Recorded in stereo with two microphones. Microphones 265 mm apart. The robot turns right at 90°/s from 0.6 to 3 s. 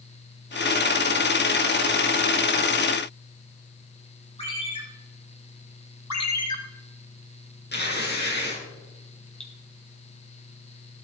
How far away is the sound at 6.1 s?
About 2.5 m.